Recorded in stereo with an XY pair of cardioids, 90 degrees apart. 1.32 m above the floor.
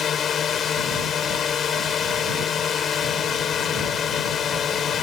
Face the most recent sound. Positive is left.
turn(degrees=65)